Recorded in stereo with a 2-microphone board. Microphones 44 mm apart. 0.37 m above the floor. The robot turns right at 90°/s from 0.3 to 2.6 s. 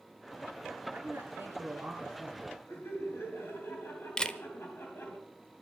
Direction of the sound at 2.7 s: 60° left (ahead or behind).